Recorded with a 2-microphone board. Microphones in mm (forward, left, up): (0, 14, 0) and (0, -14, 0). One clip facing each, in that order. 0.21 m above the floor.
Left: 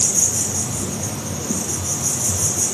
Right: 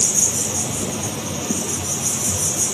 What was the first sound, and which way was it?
An insect, 60° right (ahead or behind).